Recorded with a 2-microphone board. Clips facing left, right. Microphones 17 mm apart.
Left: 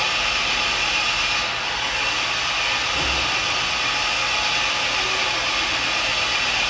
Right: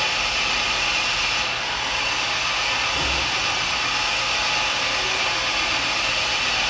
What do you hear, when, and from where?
0.0 s an engine running: centre (ahead or behind), 2 m